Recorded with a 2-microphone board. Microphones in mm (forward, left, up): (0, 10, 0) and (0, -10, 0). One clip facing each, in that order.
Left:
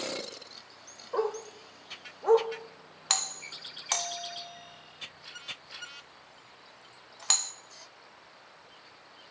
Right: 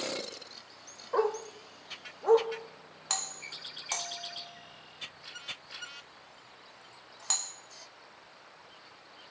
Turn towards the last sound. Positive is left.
turn(degrees=35)  # may be behind; listen again after turning